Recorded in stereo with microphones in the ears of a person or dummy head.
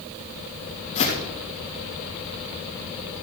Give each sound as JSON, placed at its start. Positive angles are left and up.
{"t": 0.9, "sound": "footsteps", "side_deg": 35, "distance_m": 3.5}